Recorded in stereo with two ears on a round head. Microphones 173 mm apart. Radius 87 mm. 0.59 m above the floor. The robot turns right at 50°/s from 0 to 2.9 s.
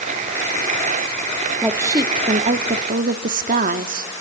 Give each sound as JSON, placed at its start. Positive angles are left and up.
{"t": 1.6, "sound": "a woman speaking", "azimuth_deg": -170, "distance_m": 0.8}